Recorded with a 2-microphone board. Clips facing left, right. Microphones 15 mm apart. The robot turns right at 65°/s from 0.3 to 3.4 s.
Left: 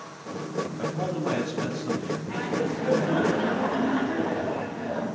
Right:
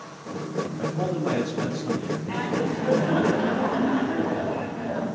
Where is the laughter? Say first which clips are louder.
Right 2 dB; 70° right, 5.5 m; by 5.2 s straight ahead, 5.5 m.